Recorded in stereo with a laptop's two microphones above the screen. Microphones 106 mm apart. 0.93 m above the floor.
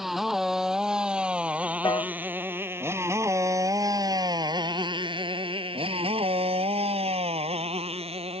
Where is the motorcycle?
5° right (ahead or behind); by 8.4 s 85° right.